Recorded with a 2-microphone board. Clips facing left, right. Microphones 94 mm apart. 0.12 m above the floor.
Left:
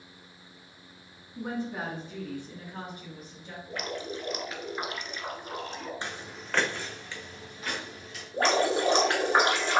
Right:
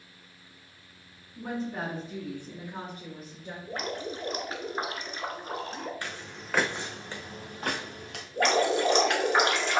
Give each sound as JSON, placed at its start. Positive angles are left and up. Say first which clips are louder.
{"t": 1.4, "sound": "a woman speaking", "louder": "even", "side_deg": 25, "distance_m": 1.8}
{"t": 3.7, "sound": "dripping", "louder": "right 1 dB", "side_deg": -40, "distance_m": 0.7}
{"t": 6.0, "sound": "footsteps", "louder": "left 1 dB", "side_deg": 20, "distance_m": 0.7}
{"t": 8.3, "sound": "dripping", "louder": "even", "side_deg": 35, "distance_m": 1.4}